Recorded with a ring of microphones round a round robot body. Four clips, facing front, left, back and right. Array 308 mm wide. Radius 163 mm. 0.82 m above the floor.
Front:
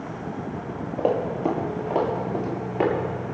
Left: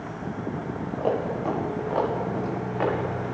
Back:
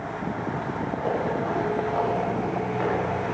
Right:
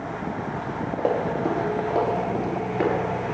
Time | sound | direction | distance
1.0 | running footsteps | 35° right | 6 m